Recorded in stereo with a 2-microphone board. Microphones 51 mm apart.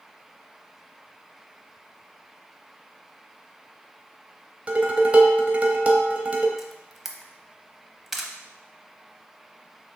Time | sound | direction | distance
4.7 | dishes clattering | 30° right (ahead or behind) | 0.7 m
6.6 | a camera shutter | 5° right (ahead or behind) | 0.6 m